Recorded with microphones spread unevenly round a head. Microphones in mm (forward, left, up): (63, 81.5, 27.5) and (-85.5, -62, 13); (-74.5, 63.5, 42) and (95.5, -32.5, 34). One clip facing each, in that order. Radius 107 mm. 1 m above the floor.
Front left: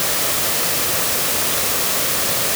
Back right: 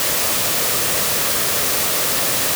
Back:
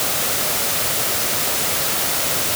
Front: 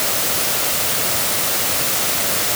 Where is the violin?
I don't hear a violin.